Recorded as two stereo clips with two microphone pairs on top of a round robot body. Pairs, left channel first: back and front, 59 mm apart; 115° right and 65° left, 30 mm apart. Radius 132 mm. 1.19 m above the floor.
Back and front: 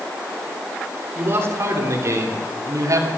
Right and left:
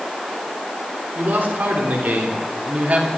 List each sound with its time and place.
1.1 s a man speaking: 50° left, 4 m; by 3.1 s 20° left, 3 m